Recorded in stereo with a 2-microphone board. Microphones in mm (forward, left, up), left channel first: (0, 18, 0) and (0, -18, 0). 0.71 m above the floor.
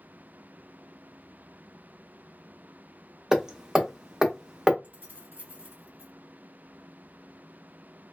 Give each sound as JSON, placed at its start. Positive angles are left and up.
{"t": 3.3, "sound": "hammering", "side_deg": -20, "distance_m": 0.5}
{"t": 4.8, "sound": "keys jangling", "side_deg": -75, "distance_m": 1.7}